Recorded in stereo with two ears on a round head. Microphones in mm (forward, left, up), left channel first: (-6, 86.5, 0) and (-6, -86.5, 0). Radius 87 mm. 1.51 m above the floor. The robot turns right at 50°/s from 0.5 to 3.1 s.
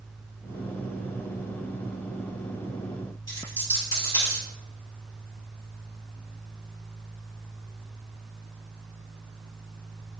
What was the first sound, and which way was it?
A dropped coin, 20° left (ahead or behind).